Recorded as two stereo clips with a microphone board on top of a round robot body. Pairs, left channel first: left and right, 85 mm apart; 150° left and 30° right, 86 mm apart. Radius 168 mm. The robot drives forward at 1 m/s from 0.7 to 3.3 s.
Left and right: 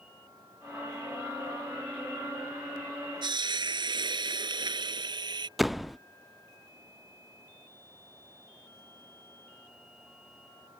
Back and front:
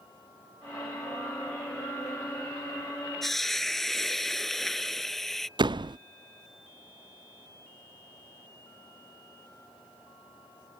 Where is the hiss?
120° right; by 5.5 s 125° right.